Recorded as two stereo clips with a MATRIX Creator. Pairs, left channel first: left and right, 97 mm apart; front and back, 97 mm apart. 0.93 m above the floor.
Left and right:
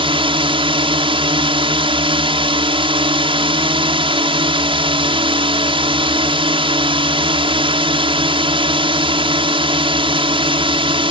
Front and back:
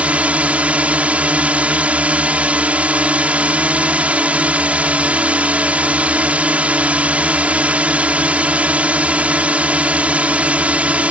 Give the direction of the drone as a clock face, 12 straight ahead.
3 o'clock.